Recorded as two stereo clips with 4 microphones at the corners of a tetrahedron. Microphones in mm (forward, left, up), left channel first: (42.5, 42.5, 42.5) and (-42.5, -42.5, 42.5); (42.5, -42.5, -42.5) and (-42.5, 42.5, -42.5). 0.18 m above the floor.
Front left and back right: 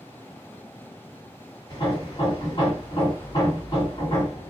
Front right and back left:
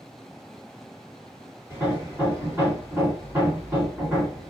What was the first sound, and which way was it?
Hammering, 75° left.